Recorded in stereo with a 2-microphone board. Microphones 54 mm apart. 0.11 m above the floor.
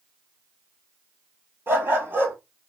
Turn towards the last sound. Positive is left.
turn(degrees=-45)  # may be behind; listen again after turning